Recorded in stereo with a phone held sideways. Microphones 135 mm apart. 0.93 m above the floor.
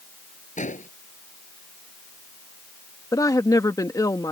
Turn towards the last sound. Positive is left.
turn(degrees=25)  # may be behind; listen again after turning